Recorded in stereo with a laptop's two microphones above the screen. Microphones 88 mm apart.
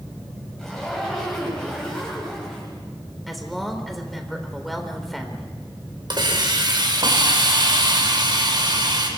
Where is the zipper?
5° left (ahead or behind), 5.5 m.